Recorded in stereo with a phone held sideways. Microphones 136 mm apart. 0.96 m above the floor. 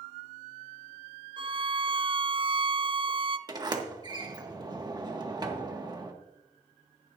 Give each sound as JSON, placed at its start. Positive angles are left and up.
{"t": 1.4, "sound": "a violin", "side_deg": -40, "distance_m": 0.6}
{"t": 3.5, "sound": "a sliding door", "side_deg": -30, "distance_m": 1.7}